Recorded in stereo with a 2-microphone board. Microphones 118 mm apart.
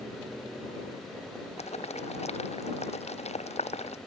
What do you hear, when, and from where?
1.6 s boiling: 70° left (ahead or behind)